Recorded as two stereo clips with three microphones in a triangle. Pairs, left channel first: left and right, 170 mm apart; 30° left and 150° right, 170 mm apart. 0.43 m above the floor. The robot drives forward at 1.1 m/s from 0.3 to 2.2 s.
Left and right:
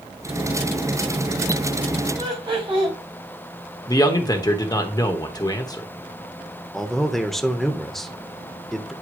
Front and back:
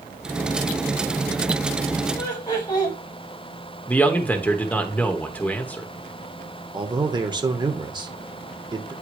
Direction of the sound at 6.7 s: 175° left.